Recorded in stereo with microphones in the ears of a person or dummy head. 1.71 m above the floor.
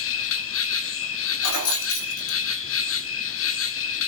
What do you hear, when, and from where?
0.0 s an insect: 65° left (ahead or behind), 1.1 m
1.4 s keys jangling: 80° left, 3 m